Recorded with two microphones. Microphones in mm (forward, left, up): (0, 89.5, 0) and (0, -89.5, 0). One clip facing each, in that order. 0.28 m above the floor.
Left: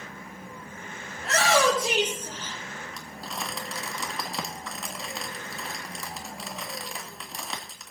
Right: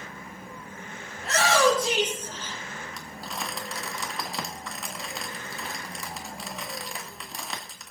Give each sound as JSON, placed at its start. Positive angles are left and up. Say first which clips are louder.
{"t": 1.2, "sound": "a shout", "louder": "even", "side_deg": 0, "distance_m": 5.5}
{"t": 2.9, "sound": "crumpling", "louder": "even", "side_deg": 0, "distance_m": 2.0}